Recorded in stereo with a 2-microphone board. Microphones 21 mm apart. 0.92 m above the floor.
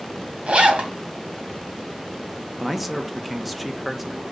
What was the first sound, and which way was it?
A zipper, 75° right (ahead or behind).